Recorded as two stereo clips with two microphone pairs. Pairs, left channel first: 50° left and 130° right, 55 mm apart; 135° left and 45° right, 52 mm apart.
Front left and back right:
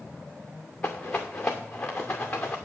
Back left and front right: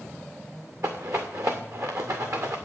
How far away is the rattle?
About 2 m.